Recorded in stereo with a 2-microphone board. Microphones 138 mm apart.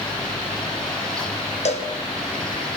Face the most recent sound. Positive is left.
turn(degrees=55)  # may be behind; listen again after turning